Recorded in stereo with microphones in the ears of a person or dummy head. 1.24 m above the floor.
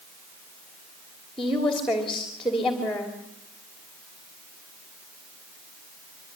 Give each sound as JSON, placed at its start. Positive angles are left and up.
{"t": 1.4, "sound": "a woman speaking", "side_deg": 0, "distance_m": 3.0}